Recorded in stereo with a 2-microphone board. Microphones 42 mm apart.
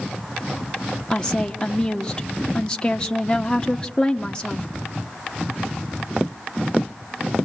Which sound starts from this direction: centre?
A woman speaking, at 1.1 s.